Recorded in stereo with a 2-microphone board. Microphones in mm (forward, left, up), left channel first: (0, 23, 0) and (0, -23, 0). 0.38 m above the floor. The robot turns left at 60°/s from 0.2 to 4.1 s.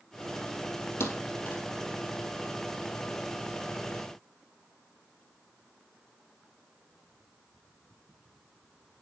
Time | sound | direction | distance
1.0 | a thud | 75° left (ahead or behind) | 1.9 m